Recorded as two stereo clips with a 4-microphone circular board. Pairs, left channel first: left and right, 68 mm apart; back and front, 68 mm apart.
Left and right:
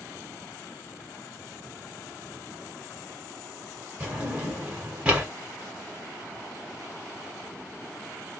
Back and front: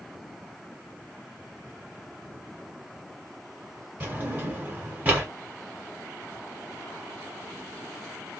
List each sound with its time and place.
4.0 s a drawer: 30° right, 1.2 m